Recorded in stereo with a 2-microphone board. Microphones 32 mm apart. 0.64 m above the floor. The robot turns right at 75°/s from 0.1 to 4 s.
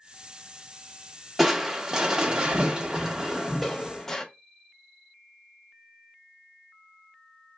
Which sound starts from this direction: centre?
Crushing, at 1.4 s.